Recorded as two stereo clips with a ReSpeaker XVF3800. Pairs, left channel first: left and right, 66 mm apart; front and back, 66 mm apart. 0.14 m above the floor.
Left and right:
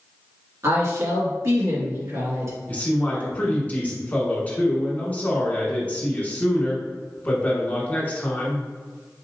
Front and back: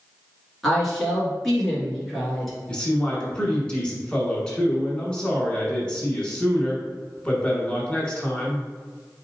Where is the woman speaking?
85° right, 2 m.